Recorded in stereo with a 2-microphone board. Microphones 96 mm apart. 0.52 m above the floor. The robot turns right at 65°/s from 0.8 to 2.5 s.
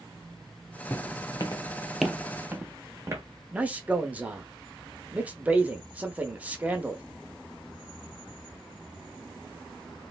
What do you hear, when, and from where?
0.9 s footsteps: 30° left (ahead or behind), 0.9 m; by 3.2 s 30° right (ahead or behind), 1.1 m
3.5 s a man speaking: 15° right (ahead or behind), 0.6 m